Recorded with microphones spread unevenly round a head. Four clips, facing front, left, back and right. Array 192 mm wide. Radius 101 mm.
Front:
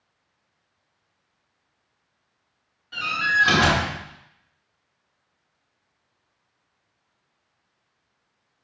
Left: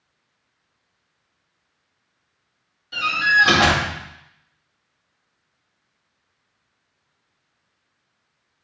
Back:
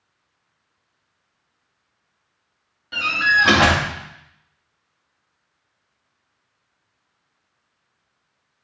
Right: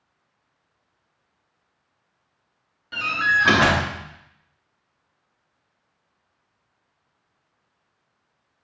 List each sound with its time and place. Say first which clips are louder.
2.9 s a door slam: left 3 dB, back 4 dB; 145° right, 3 m